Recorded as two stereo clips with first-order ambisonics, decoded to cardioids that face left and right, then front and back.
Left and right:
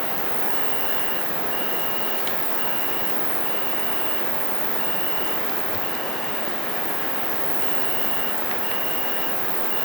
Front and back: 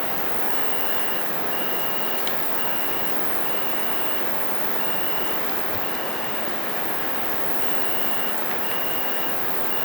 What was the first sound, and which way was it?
An insect, 115° right.